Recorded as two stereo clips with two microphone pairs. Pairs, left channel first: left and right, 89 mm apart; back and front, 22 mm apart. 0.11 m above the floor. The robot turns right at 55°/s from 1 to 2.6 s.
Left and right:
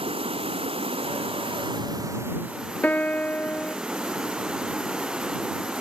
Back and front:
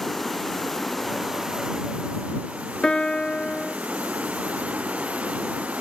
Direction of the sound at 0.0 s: 100° right.